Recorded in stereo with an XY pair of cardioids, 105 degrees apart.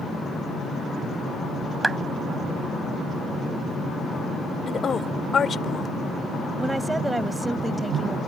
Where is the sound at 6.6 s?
15° right.